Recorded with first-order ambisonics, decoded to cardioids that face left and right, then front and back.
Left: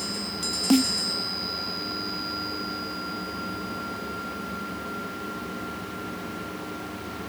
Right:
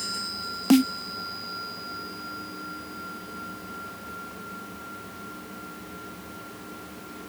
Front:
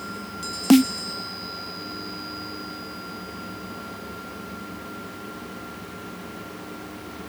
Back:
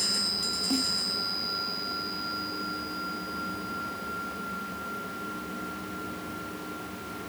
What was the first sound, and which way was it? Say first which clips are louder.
A snare drum: right 2 dB, front 14 dB; 10° right.